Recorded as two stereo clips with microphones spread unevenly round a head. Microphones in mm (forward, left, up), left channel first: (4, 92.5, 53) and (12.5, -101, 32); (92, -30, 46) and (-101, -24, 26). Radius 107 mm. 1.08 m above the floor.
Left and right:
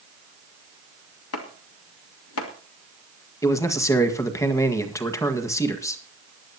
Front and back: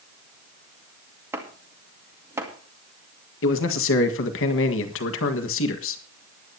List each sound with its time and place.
1.3 s chopping: 100° left, 2 m
3.4 s a man speaking: 15° left, 1.7 m